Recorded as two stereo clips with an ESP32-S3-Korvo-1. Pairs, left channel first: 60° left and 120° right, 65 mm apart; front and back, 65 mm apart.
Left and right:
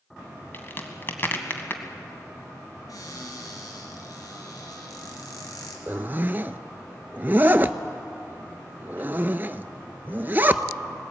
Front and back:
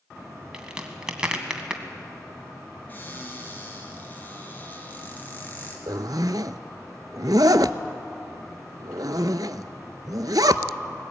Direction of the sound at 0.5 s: 105° left.